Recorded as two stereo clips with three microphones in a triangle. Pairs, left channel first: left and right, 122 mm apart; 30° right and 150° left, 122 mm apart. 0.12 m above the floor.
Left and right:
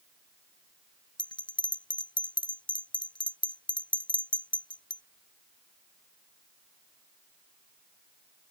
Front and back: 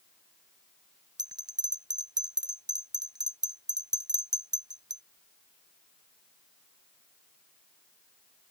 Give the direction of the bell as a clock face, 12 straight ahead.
8 o'clock.